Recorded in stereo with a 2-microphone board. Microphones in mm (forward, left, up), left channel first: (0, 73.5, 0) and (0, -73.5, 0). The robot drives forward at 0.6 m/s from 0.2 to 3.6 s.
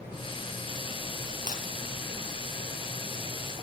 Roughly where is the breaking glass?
Left.